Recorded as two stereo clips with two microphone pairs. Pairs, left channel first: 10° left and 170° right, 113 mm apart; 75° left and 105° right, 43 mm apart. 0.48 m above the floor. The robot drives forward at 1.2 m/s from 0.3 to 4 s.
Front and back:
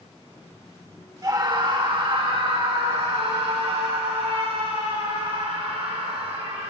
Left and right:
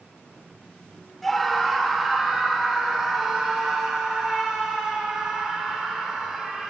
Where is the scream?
155° left, 1.6 m; by 6.7 s 175° left, 4.5 m.